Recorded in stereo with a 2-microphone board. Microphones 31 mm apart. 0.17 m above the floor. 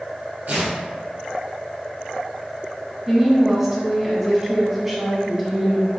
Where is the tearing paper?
65° right (ahead or behind), 1.4 m.